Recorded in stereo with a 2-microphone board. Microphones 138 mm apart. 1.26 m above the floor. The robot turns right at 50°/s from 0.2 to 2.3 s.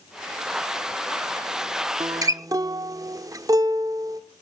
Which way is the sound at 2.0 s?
25° right (ahead or behind).